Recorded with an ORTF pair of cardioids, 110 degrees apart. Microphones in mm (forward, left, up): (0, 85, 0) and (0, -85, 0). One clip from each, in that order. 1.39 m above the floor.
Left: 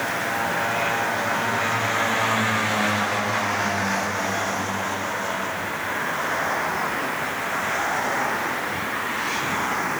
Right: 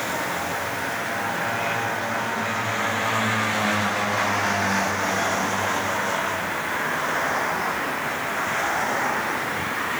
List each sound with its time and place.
Only background noise.